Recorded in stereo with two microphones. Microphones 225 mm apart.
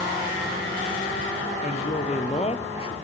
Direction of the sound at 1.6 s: 35° left (ahead or behind).